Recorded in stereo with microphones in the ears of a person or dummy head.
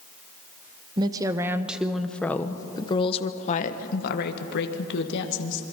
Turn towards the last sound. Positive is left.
turn(degrees=70)  # may be behind; listen again after turning